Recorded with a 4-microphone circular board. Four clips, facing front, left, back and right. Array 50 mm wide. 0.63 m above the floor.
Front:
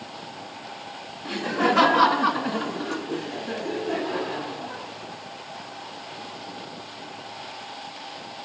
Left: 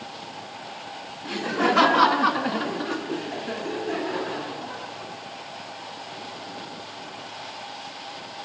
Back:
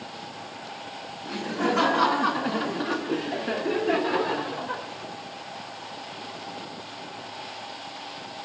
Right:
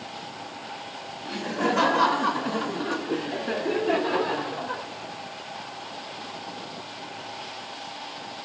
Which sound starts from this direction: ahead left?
Laughter, at 1.2 s.